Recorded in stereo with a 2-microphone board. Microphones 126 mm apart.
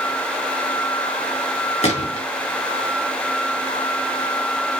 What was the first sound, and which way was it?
A gunshot, 60° left (ahead or behind).